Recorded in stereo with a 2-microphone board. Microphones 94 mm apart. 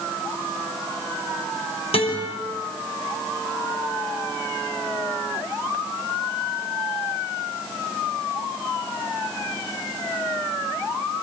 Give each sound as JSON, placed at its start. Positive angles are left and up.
{"t": 1.9, "sound": "a guitar", "side_deg": 90, "distance_m": 6.0}